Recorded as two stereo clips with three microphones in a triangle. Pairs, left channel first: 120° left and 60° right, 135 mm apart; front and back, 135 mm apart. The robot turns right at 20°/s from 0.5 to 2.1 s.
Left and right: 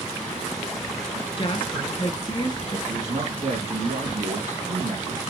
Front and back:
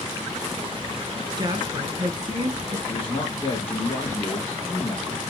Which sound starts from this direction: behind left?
A woman speaking, at 1.4 s.